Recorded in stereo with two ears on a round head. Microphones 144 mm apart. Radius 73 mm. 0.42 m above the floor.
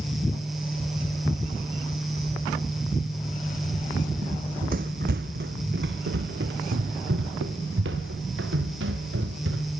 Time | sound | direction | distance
4.2 | running footsteps | 45° right (ahead or behind) | 1.3 m